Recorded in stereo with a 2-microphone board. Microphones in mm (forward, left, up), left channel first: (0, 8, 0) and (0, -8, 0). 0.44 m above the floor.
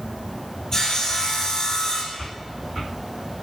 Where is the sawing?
45° left (ahead or behind), 2.5 m.